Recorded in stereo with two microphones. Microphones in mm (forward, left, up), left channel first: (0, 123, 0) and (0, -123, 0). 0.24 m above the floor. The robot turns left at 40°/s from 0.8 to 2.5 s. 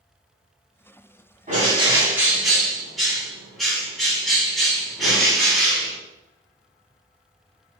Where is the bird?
140° right, 1.5 m; by 6.0 s straight behind, 1.5 m.